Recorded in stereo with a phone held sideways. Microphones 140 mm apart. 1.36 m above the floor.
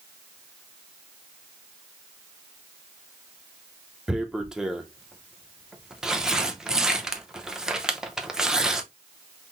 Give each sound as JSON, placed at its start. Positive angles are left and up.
{"t": 4.1, "sound": "tearing paper", "side_deg": -5, "distance_m": 0.6}